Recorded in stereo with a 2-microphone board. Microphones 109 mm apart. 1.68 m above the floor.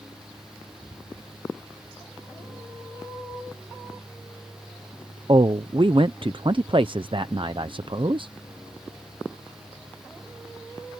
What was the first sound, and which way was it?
A man speaking, 50° right (ahead or behind).